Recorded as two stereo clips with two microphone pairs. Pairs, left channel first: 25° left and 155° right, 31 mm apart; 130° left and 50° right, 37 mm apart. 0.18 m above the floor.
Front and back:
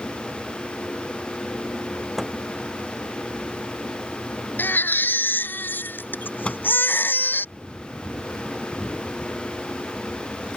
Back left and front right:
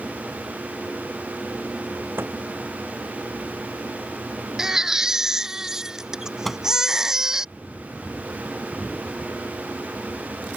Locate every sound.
2.2 s a microwave: 65° right
4.6 s a baby crying: 25° left
6.5 s a microwave: 45° left